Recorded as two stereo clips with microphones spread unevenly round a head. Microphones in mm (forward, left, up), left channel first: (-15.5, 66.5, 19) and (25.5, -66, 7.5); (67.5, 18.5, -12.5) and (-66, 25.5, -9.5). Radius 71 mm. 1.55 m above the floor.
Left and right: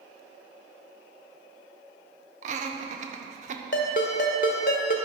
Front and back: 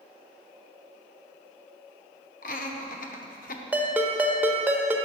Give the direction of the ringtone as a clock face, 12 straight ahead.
9 o'clock.